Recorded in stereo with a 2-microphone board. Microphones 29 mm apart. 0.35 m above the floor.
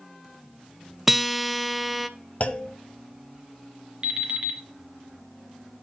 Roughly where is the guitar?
Centre.